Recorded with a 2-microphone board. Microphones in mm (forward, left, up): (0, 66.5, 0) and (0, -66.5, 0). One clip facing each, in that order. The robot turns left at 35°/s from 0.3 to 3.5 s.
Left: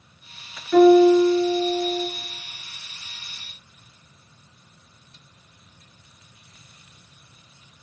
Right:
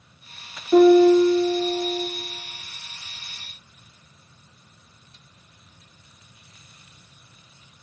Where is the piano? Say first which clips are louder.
Even; 150° right, 3.5 m; by 2.1 s 160° left, 3.5 m.